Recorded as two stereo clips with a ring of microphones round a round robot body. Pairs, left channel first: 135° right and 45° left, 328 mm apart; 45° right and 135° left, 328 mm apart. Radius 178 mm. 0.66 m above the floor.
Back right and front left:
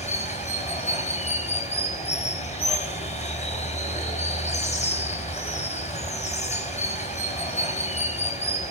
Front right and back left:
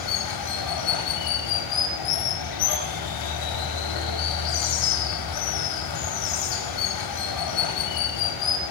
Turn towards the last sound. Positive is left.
turn(degrees=-65)